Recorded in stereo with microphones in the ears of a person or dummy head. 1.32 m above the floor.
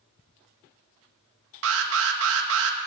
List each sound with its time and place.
1.6 s an alarm: 75° right (ahead or behind), 1.3 m